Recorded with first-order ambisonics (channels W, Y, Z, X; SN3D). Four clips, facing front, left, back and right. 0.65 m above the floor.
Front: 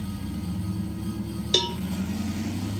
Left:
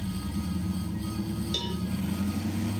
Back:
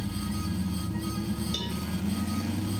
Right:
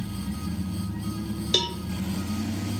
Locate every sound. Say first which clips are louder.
1.5 s a cowbell: right 10 dB, front 9 dB; 45° right, 0.6 m